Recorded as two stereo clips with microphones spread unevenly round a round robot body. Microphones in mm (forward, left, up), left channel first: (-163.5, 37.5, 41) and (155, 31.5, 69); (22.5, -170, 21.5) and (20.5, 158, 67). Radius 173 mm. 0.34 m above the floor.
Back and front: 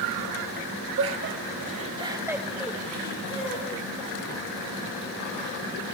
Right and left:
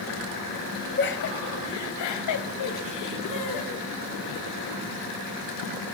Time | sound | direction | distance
1.0 | laughter | 45° right | 1.7 m